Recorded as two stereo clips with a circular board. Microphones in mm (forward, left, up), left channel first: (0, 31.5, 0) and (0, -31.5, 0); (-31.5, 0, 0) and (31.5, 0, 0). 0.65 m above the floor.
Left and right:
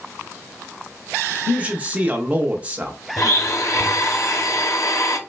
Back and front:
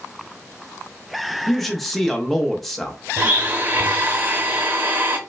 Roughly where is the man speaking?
Right.